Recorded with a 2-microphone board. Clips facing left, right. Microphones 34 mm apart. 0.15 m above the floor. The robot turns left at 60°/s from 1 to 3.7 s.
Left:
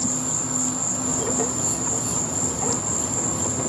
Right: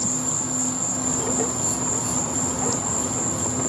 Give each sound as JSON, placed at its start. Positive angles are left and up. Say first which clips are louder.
{"t": 0.0, "sound": "an insect", "louder": "even", "azimuth_deg": -15, "distance_m": 4.0}